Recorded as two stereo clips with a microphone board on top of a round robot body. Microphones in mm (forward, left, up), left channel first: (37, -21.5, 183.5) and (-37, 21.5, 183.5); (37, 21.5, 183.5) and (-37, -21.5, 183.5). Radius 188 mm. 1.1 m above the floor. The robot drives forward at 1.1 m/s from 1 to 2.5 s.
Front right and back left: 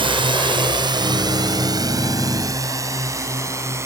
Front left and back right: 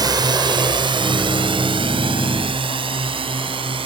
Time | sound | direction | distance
0.0 | a drone | 170° left | ?